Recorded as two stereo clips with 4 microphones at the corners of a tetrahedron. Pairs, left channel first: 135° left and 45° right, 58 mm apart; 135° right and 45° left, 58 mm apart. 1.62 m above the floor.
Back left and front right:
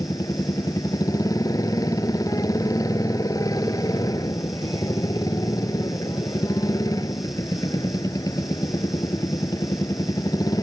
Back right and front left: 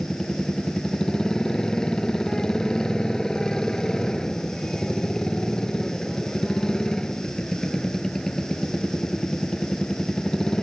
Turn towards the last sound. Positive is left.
turn(degrees=145)